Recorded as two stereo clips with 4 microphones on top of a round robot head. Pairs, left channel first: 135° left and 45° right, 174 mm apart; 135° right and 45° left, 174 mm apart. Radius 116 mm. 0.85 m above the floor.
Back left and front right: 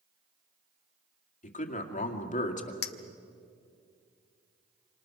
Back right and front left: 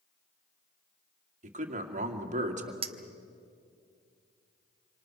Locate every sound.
1.4 s a man speaking: 90° left, 2.5 m
2.8 s a clink: 105° left, 0.8 m